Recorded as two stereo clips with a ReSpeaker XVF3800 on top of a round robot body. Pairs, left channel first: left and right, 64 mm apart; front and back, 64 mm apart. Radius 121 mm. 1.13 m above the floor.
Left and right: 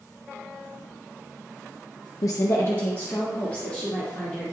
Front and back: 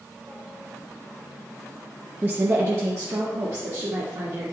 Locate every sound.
2.2 s a woman speaking: 115° left, 0.5 m; by 4.4 s 155° left, 2.5 m